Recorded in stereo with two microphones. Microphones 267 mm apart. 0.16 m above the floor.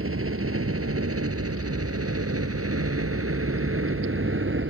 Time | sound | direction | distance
0.0 | a helicopter | 55° right (ahead or behind) | ?